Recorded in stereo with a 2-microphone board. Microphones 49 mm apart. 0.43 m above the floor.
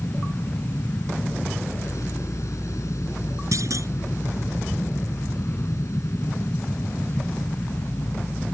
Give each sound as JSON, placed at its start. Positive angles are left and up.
{"t": 0.0, "sound": "an aircraft", "side_deg": 70}
{"t": 3.5, "sound": "a clunk", "side_deg": -85}